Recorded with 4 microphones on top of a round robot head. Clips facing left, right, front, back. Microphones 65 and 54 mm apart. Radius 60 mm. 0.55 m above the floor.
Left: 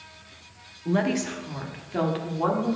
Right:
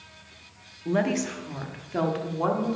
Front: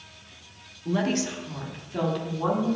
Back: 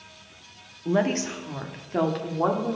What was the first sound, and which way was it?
A woman speaking, 170° right.